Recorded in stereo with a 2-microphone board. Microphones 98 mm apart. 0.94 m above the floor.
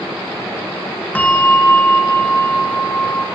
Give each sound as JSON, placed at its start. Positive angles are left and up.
{"t": 1.1, "sound": "a bell", "side_deg": 15, "distance_m": 1.6}